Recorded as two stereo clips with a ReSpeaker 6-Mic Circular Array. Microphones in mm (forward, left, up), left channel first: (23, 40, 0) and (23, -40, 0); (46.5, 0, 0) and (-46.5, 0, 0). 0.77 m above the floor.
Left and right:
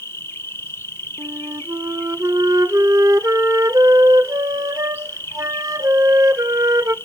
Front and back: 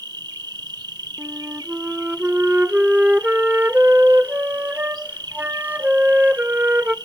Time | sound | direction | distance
0.0 | an insect | 145° left | 0.8 m
1.2 | a flute | 115° right | 0.5 m